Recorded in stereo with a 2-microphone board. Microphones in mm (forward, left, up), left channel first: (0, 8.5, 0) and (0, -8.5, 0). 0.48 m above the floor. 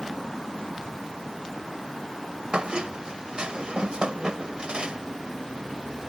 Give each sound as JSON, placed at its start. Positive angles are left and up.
{"t": 2.5, "sound": "a squeak", "side_deg": -70}